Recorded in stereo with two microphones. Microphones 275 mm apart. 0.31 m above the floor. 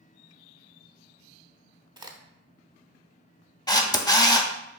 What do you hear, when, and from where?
2.0 s a crack: 15° right (ahead or behind), 0.6 m
3.7 s a camera shutter: 15° left (ahead or behind), 0.6 m